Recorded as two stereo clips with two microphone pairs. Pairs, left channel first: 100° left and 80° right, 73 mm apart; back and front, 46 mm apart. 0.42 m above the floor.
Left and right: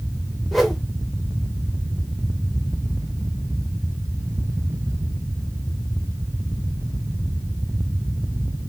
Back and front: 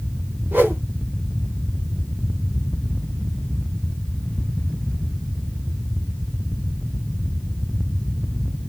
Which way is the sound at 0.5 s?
10° left.